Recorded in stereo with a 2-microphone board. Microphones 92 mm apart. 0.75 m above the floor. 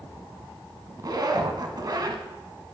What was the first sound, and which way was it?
A zipper, 55° right (ahead or behind).